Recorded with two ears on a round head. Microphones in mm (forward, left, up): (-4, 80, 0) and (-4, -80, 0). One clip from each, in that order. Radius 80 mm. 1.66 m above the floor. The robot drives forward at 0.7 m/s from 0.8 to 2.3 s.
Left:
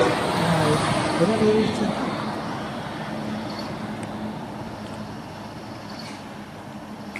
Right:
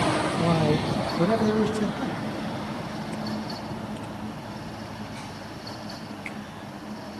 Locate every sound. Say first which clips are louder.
0.4 s a man speaking: left 3 dB; 15° right (ahead or behind), 0.7 m; by 2.2 s 5° right (ahead or behind), 1.6 m